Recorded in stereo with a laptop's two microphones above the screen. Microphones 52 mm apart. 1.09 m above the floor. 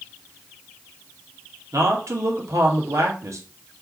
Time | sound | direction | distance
1.7 | a man speaking | 75° right (ahead or behind) | 3 m